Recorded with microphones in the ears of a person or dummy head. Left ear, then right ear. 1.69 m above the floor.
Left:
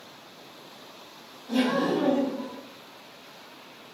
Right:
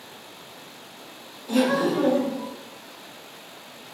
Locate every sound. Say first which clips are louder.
1.5 s laughter: right 3 dB; 60° right (ahead or behind), 1.1 m